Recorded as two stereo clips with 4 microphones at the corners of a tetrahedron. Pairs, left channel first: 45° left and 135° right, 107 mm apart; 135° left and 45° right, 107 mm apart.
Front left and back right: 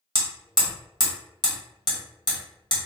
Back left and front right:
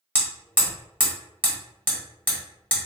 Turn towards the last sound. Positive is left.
turn(degrees=25)